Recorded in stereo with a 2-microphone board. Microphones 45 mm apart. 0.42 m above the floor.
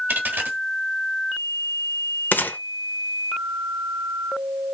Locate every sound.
0.1 s a dropped coin: 45° right (ahead or behind), 1.4 m
2.3 s a gunshot: 45° left (ahead or behind), 0.6 m